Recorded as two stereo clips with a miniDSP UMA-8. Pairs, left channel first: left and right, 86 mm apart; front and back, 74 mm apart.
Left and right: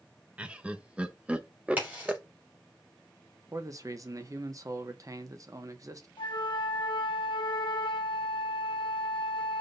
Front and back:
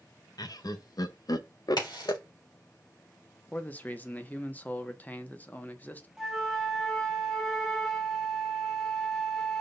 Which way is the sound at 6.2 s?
90° left.